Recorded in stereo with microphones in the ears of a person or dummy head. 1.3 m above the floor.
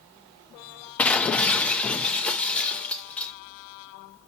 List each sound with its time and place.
1.0 s breaking glass: 10° left (ahead or behind), 0.6 m